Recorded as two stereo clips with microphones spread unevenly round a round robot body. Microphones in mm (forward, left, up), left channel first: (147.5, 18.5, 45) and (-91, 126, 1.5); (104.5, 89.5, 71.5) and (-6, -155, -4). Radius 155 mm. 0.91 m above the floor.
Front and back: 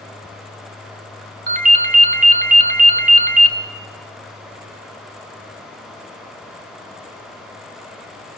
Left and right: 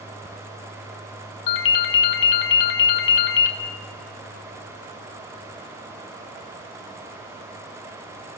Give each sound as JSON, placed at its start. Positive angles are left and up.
{"t": 1.5, "sound": "a ringtone", "azimuth_deg": 95, "distance_m": 1.5}